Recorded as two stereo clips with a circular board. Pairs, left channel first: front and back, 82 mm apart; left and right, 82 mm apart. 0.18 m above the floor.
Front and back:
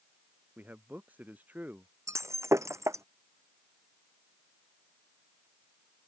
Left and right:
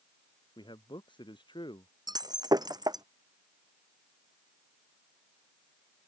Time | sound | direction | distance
0.6 | a man speaking | 110° left | ?
2.1 | breaking glass | 125° right | ?